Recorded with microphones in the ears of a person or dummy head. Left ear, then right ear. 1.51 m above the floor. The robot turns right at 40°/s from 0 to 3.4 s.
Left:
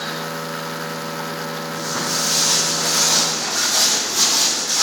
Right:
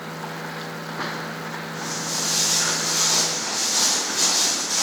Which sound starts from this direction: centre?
Footsteps, at 1.7 s.